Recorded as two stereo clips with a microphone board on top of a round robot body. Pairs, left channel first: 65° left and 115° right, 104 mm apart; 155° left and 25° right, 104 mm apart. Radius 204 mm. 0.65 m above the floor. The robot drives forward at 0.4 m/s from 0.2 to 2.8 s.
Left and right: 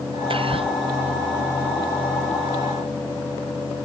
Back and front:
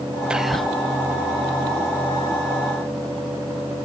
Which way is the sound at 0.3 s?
105° right.